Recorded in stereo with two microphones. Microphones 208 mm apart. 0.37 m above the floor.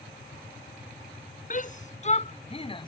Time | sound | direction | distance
1.5 | a shout | 40° left (ahead or behind) | ?